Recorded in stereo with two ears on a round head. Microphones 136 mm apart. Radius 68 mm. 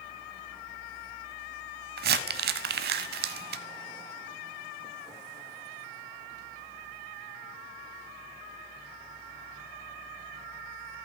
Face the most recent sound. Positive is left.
turn(degrees=-70)  # may be behind; listen again after turning